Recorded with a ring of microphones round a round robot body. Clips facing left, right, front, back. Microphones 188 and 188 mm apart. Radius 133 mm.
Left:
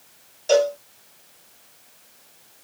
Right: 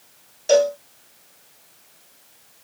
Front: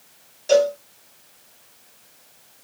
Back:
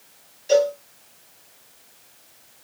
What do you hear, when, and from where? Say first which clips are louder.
0.5 s a cowbell: right 2 dB, front 1 dB; 20° right, 1.0 m